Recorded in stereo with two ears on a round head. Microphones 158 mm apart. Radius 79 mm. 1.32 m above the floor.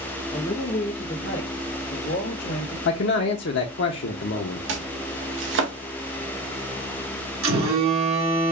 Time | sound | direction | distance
0.3 | a woman speaking | 25° left (ahead or behind) | 0.6 m
2.9 | a man speaking | 65° left (ahead or behind) | 0.6 m
4.7 | chopping | 70° right (ahead or behind) | 0.9 m
7.4 | a phone buzzing | 80° right | 2 m